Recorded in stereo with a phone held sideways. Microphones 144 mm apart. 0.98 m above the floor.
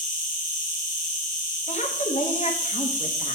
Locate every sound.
0.0 s an insect: 75° left (ahead or behind), 1.8 m
1.7 s a woman speaking: 55° left (ahead or behind), 1.1 m